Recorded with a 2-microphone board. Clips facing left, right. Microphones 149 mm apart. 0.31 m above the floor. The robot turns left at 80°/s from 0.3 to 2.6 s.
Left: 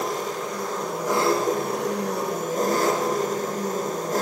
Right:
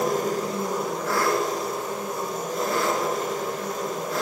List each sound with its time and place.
0.0 s an engine running: 130° right, 2.5 m; by 4.2 s 45° left, 2.5 m